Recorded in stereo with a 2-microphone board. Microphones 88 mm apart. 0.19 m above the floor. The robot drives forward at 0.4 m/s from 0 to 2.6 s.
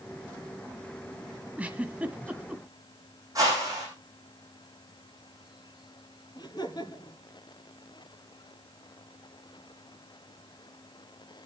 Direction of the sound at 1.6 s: 15° right (ahead or behind).